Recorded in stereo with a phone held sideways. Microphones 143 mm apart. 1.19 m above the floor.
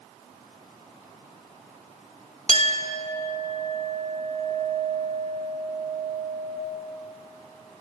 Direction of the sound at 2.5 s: 50° left (ahead or behind).